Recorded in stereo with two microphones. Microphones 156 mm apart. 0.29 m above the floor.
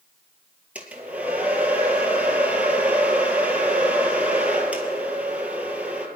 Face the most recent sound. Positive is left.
turn(degrees=-10)  # may be behind; listen again after turning